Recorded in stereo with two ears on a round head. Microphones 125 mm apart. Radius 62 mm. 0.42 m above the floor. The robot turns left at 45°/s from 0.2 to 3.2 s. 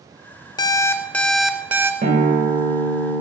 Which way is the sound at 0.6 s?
40° left.